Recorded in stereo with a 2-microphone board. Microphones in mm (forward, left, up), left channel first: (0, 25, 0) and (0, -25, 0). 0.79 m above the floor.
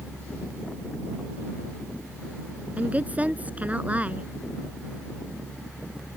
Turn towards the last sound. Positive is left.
turn(degrees=-30)  # may be behind; listen again after turning